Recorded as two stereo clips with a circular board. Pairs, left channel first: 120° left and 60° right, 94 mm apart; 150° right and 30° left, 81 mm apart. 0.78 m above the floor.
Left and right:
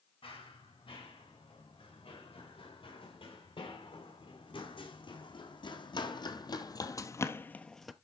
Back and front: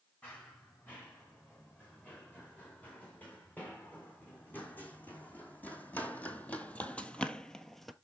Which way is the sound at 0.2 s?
140° left.